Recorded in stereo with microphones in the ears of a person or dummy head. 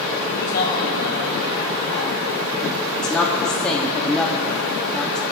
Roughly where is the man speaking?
Left.